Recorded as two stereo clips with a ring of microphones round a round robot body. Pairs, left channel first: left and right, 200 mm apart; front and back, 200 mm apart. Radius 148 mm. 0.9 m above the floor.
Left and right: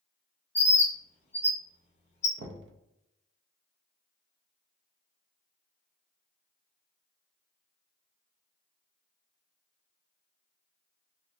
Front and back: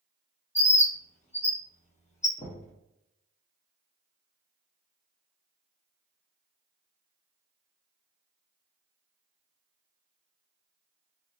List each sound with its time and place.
0.6 s a bird: 45° left, 1.0 m
2.4 s knocking: 65° right, 0.5 m